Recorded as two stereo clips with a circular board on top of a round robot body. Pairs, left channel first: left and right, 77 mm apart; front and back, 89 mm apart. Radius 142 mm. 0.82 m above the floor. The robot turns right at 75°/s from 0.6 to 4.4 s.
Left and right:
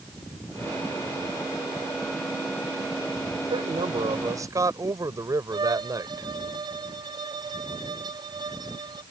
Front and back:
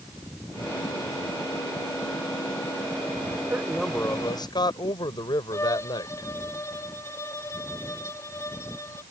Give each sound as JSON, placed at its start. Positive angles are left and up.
{"t": 3.5, "sound": "a man speaking", "azimuth_deg": -110}
{"t": 5.5, "sound": "a violin", "azimuth_deg": -60}